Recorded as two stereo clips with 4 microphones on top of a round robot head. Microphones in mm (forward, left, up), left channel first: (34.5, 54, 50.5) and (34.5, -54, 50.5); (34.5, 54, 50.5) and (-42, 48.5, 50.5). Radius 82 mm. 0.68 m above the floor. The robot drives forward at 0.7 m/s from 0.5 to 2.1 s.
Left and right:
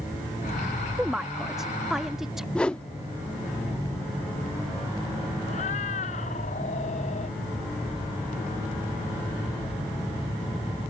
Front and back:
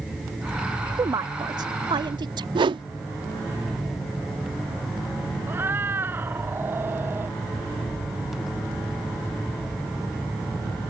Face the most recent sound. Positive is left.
turn(degrees=125)